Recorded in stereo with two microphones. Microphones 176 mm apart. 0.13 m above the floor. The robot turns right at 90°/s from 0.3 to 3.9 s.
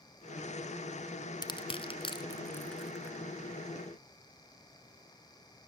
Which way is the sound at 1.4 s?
25° left (ahead or behind).